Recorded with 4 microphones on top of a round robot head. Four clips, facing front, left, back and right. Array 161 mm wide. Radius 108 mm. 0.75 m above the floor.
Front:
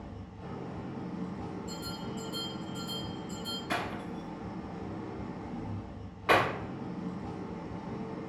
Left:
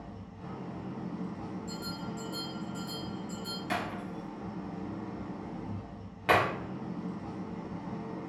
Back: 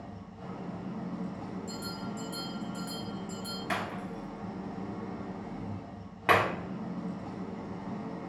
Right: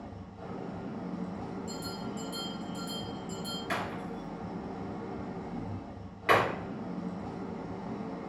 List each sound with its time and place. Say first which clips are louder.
0.0 s an engine running: right 1 dB, back 1 dB; 120° right, 1.1 m
1.7 s a bell: right 1 dB, back 1 dB; 150° right, 0.6 m
3.7 s breaking glass: left 1 dB, even; 155° left, 1.1 m